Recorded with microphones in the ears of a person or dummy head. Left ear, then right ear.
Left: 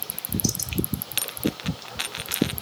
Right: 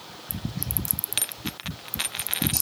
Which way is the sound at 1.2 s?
5° right (ahead or behind).